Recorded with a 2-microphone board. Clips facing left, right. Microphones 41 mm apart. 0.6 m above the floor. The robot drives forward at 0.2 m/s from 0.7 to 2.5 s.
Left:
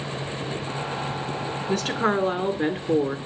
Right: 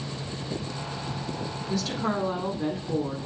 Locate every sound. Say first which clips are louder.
1.7 s a woman speaking: left 5 dB; 55° left (ahead or behind), 1.9 m; by 3.2 s 50° left (ahead or behind), 2.0 m